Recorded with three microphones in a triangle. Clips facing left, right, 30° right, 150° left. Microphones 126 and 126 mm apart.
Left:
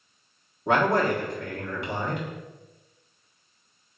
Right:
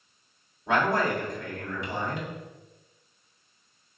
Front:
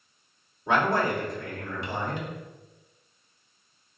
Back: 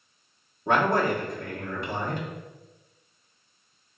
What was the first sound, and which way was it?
A man speaking, 110° left.